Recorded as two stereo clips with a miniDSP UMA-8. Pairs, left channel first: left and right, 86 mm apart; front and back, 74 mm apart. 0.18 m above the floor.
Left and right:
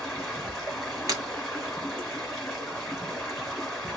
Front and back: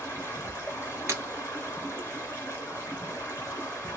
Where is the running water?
Straight ahead, 1.4 m.